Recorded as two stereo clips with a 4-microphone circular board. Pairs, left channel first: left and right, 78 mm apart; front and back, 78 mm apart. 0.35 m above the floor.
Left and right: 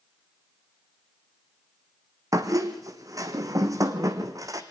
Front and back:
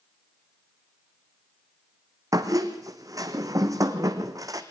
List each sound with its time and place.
2.3 s a squeak: 135° right, 1.4 m